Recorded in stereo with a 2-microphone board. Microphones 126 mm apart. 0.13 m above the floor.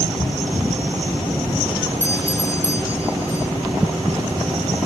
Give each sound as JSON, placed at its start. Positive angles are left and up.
{"t": 2.0, "sound": "a doorbell", "side_deg": 25}